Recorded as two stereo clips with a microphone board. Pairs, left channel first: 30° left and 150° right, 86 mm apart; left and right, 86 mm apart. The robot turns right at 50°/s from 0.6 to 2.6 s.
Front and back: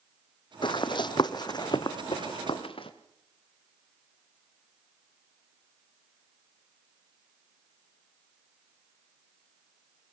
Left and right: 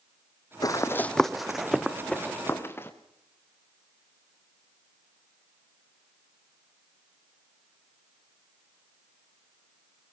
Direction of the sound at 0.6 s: 45° left.